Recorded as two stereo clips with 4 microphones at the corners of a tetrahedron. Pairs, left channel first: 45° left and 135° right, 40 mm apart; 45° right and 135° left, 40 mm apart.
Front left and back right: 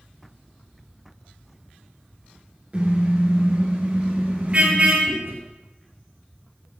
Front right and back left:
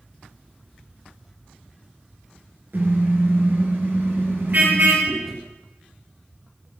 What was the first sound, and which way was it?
A car horn, 170° left.